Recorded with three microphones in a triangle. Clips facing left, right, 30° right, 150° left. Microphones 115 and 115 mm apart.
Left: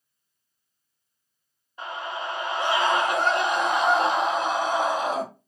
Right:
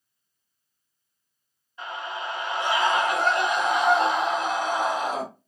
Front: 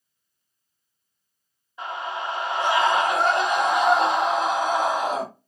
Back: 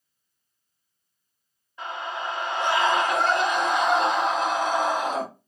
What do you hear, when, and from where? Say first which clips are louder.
1.8 s a scream: left 1 dB, front 2 dB; 40° left, 1.1 m